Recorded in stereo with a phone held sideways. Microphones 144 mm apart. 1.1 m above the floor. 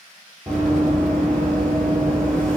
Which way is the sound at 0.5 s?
5° left (ahead or behind).